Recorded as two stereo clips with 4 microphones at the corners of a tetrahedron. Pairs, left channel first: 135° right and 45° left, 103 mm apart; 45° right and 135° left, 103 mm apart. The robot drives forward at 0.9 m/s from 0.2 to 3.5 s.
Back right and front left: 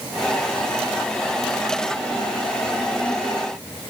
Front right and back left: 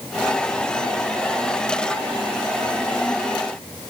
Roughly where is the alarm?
I don't hear an alarm.